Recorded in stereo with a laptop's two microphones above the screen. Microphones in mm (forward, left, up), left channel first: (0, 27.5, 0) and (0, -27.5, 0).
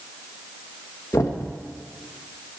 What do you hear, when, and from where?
1.1 s knocking: 70° left (ahead or behind), 1.1 m